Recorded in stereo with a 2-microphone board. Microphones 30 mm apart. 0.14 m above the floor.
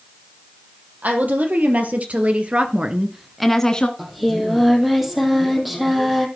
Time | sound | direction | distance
1.0 | a woman speaking | 60° right (ahead or behind) | 4 m
4.0 | singing | 5° right (ahead or behind) | 2.5 m